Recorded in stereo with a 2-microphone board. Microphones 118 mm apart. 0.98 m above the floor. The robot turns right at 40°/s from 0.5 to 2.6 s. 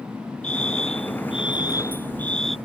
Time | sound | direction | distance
0.4 | a fire alarm | 100° left | ?